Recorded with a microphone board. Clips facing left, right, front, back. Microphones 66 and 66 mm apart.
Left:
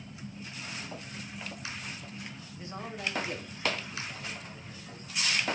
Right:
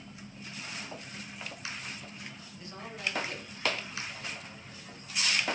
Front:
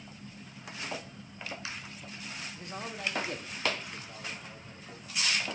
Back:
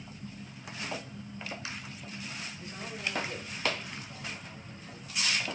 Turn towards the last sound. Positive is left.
turn(degrees=10)